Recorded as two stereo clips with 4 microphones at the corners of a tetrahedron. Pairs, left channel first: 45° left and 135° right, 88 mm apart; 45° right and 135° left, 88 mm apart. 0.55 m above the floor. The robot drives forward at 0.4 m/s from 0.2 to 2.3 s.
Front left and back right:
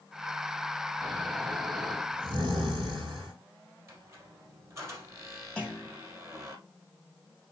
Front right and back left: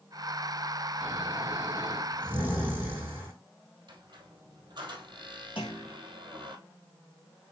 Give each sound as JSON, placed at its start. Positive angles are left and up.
{"t": 1.0, "sound": "snoring", "azimuth_deg": -160, "distance_m": 4.5}
{"t": 3.9, "sound": "a squeak", "azimuth_deg": 165, "distance_m": 2.5}
{"t": 5.6, "sound": "a clunk", "azimuth_deg": -35, "distance_m": 3.0}